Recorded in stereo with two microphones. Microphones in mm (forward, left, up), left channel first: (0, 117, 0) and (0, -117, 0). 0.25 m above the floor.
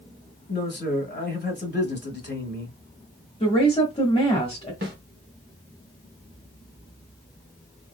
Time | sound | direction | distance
0.5 | a man speaking | 45° left (ahead or behind) | 1.4 m
3.4 | a woman speaking | 20° left (ahead or behind) | 1.2 m
4.8 | a snare drum | 55° right (ahead or behind) | 1.2 m